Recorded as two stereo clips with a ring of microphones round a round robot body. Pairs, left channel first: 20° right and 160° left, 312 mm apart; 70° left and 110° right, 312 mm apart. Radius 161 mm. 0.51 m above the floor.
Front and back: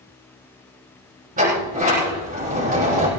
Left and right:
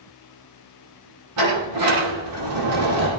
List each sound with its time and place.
1.4 s a sliding door: 135° right, 7 m